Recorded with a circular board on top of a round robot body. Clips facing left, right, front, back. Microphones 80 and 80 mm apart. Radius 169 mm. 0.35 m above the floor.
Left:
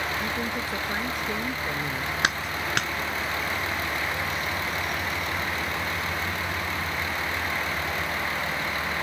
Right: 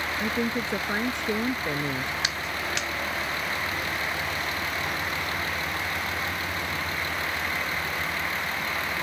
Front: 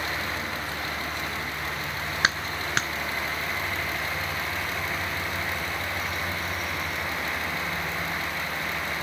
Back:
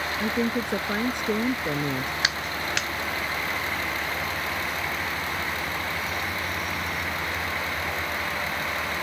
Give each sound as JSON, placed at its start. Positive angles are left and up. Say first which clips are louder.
{"t": 0.2, "sound": "a woman speaking", "louder": "right 2 dB, back 6 dB", "azimuth_deg": -155}
{"t": 2.2, "sound": "a clap", "louder": "left 3 dB, front 1 dB", "azimuth_deg": 50}